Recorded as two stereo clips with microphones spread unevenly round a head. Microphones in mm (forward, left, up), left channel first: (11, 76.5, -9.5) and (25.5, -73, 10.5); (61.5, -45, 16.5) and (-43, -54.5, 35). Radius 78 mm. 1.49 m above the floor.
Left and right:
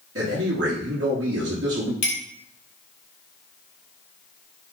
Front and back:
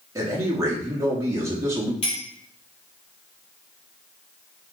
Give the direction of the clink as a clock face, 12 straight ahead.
10 o'clock.